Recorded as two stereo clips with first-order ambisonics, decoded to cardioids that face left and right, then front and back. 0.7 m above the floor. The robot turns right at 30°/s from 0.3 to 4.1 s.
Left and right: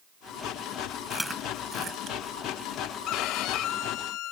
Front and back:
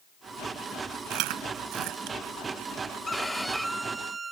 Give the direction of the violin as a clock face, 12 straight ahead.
9 o'clock.